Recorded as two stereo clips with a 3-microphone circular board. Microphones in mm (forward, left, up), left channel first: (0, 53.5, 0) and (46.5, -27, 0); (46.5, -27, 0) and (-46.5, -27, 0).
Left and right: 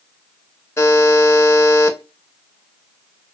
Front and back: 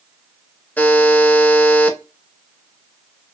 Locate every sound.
0.8 s a buzzer: 65° left, 0.6 m